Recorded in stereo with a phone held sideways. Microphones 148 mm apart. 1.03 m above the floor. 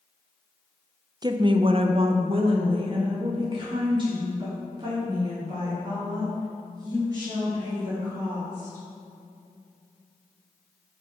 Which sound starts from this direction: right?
A woman speaking, at 1.2 s.